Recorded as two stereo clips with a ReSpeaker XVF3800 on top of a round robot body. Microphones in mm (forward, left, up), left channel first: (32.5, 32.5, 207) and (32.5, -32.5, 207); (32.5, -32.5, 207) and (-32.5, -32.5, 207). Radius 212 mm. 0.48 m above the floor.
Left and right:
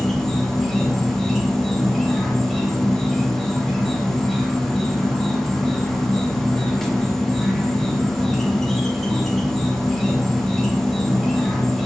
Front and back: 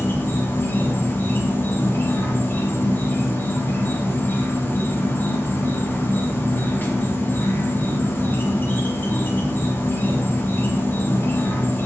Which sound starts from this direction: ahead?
An insect, at 0.0 s.